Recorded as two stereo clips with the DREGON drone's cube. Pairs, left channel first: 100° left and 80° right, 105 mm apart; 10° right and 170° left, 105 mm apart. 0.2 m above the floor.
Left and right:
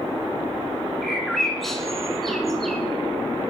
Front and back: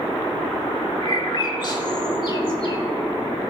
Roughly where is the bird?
Ahead.